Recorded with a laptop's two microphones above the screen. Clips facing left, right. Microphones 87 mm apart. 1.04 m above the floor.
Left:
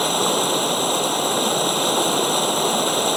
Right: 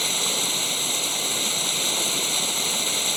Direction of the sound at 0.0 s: 55° left (ahead or behind).